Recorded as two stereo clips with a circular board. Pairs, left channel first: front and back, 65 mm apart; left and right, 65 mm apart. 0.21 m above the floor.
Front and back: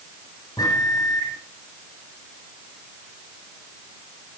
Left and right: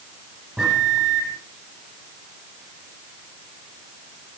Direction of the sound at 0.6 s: 15° right.